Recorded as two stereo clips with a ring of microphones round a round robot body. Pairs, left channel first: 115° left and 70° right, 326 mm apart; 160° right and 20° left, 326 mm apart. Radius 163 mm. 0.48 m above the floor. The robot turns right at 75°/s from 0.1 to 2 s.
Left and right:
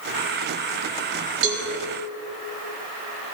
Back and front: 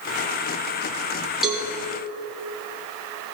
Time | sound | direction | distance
1.4 | a cowbell | 65° right | 2.5 m